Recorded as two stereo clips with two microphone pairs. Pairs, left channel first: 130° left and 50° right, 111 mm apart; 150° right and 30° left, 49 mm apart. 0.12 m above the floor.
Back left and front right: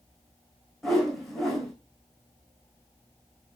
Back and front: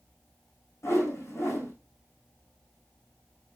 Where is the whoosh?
140° right, 5 m.